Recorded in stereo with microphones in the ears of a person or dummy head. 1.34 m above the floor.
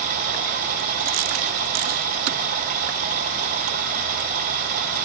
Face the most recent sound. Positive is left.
turn(degrees=-45)  # may be behind; listen again after turning